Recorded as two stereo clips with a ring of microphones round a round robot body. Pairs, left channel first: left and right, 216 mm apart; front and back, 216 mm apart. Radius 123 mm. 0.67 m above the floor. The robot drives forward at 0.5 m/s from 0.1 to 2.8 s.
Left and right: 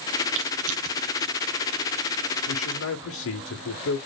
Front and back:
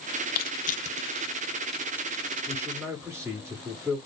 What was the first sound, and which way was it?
Crushing, 45° right.